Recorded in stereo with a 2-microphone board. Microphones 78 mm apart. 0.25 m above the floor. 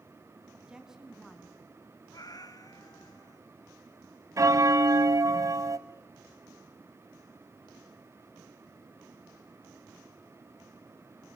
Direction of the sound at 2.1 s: 55° left (ahead or behind).